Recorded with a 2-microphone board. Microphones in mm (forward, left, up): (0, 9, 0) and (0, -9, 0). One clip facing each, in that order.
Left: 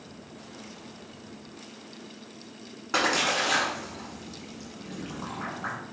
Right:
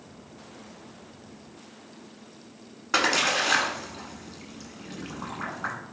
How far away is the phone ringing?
I don't hear a phone ringing.